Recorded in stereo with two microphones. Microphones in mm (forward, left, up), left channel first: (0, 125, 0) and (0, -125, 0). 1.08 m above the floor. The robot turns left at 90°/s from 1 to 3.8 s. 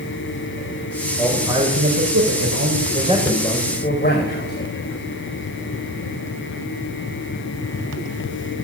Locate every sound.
1.2 s a man speaking: 15° left, 5.5 m; by 4.5 s 140° left, 5.5 m